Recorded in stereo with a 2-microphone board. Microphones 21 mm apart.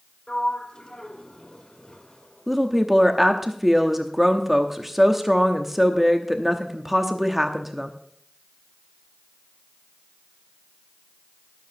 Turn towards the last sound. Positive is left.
turn(degrees=-10)  # may be behind; listen again after turning